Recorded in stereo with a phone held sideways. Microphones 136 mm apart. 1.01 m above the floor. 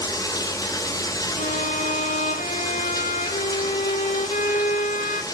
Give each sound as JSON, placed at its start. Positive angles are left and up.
{"t": 0.0, "sound": "running water", "side_deg": 25, "distance_m": 1.0}
{"t": 1.4, "sound": "a violin", "side_deg": 65, "distance_m": 0.8}